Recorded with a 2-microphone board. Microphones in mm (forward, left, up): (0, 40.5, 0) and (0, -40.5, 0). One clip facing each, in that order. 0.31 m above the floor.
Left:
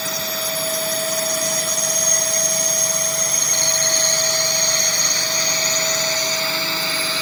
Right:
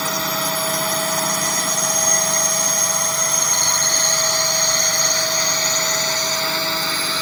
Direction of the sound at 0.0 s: 60° right (ahead or behind).